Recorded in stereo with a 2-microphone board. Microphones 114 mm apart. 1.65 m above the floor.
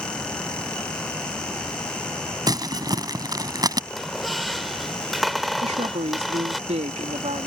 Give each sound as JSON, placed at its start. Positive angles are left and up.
{"t": 2.5, "sound": "crumpling", "side_deg": -35}
{"t": 3.9, "sound": "a squeak", "side_deg": 0}
{"t": 5.6, "sound": "a woman speaking", "side_deg": -80}